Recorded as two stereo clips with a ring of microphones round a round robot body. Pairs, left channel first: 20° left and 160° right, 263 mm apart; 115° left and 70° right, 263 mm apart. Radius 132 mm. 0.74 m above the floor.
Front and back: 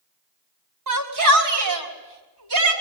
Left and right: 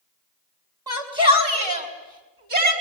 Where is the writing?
No writing in this recording.